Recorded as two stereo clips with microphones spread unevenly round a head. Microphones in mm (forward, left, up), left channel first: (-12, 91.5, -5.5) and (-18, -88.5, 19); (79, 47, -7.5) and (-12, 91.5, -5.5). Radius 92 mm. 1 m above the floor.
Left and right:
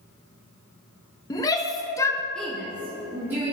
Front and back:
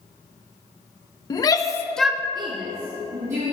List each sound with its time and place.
1.3 s a shout: 20° left, 1.3 m; by 3.5 s 175° right, 2.0 m